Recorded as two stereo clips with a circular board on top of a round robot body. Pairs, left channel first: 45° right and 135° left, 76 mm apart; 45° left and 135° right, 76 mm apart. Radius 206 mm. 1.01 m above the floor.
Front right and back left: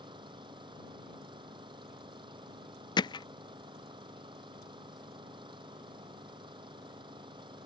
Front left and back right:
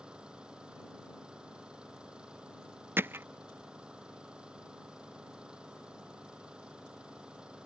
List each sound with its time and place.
0.0 s an engine running: 145° left
3.0 s hammering: 70° right